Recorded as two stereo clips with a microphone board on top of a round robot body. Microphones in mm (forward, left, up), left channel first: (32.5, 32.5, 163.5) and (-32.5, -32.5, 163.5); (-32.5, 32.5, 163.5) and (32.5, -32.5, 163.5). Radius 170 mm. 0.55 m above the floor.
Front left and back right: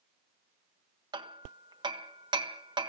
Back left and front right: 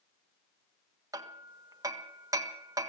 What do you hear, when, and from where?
1.1 s hammering: 100° right, 1.3 m